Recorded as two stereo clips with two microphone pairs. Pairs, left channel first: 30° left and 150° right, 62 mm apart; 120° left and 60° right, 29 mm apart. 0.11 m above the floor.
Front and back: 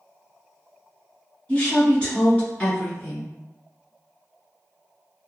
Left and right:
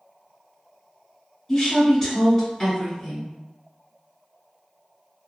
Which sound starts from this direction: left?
A woman speaking, at 1.5 s.